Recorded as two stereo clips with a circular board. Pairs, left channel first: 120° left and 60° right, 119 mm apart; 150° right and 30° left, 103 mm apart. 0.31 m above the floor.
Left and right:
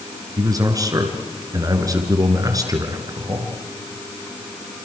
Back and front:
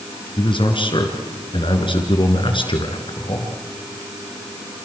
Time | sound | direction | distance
0.4 | a man speaking | 120° right | 4 m